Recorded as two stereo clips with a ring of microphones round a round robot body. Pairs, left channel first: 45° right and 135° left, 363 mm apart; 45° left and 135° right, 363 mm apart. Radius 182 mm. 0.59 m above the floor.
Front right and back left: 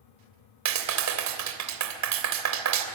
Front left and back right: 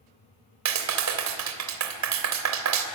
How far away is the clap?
About 2.5 m.